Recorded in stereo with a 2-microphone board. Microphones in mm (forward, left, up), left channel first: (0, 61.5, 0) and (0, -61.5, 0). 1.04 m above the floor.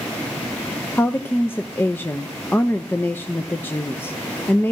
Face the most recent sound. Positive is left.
turn(degrees=15)  # may be behind; listen again after turning